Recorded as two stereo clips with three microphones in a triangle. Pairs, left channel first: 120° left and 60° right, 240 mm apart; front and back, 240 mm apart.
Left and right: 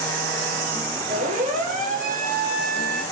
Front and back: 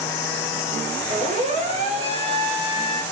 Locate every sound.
1.1 s a siren: 120° right, 9 m; by 3.0 s 110° right, 9 m